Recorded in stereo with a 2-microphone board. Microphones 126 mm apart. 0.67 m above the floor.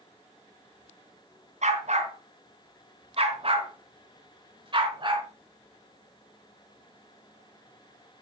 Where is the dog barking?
65° right (ahead or behind), 2.5 m; by 5.3 s 35° right (ahead or behind), 3.5 m.